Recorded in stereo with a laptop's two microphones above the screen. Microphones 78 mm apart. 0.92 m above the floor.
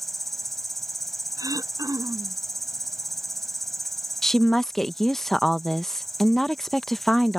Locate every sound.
0.0 s an insect: centre (ahead or behind)
1.4 s throat clearing: 50° right (ahead or behind)
4.2 s a woman speaking: 5° left (ahead or behind)